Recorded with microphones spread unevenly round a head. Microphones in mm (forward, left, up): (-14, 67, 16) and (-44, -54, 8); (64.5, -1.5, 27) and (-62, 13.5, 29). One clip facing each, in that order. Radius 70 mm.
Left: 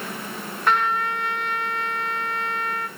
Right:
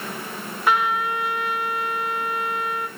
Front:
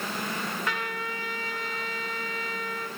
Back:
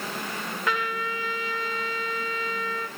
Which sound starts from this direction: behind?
A trumpet, at 0.7 s.